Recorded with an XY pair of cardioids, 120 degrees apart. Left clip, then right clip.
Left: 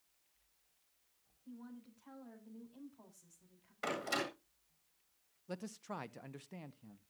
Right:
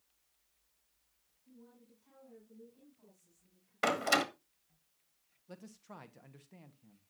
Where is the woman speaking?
70° left, 5 m.